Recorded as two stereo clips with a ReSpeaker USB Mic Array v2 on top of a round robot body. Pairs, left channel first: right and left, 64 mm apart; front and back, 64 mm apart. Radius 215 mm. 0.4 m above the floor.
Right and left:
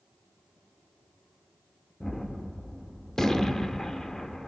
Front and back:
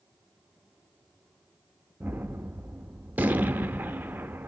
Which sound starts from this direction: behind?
A gunshot, at 2.0 s.